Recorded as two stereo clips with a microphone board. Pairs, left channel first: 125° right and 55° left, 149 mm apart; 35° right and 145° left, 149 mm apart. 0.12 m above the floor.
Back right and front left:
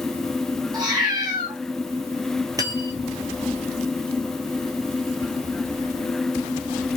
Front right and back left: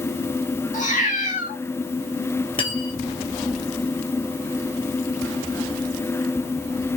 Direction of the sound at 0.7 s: 5° right.